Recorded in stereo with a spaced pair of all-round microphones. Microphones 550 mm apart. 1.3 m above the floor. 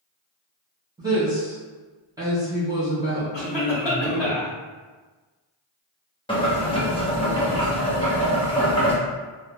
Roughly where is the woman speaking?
Centre.